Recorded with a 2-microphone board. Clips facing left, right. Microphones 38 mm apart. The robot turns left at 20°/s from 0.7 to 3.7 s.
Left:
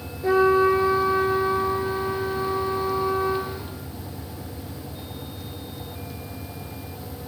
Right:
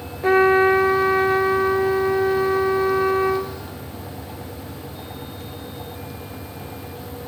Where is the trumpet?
55° right, 1.4 m; by 3.5 s 115° right, 1.4 m.